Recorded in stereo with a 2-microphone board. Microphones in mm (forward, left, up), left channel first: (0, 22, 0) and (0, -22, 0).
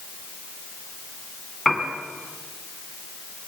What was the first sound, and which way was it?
A piano, centre (ahead or behind).